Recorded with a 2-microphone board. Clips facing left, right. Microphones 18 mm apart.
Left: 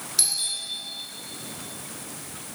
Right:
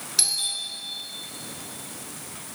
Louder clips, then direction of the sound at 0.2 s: Right 2 dB; 15° right (ahead or behind).